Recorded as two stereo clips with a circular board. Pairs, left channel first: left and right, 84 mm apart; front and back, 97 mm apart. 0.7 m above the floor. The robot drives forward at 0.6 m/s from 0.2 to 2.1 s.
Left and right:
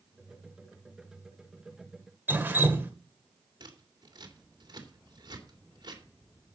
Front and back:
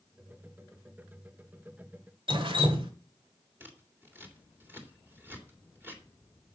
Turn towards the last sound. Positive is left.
turn(degrees=-115)